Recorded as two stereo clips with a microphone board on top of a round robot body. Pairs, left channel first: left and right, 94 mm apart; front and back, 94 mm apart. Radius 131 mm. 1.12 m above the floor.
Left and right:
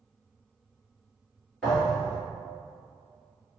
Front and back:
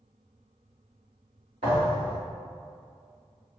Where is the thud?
175° left, 1.3 m.